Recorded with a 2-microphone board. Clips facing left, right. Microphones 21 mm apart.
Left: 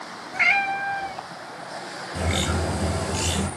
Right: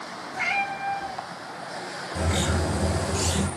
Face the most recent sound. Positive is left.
turn(degrees=55)  # may be behind; listen again after turning